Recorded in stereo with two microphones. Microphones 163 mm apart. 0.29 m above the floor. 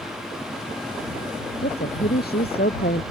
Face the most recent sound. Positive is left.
turn(degrees=75)  # may be behind; listen again after turning